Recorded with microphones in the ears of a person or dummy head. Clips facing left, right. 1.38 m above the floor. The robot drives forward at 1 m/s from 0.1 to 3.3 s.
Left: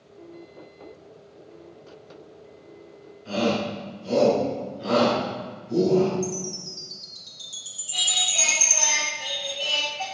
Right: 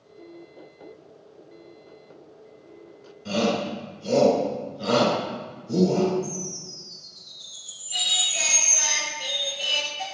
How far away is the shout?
About 2 m.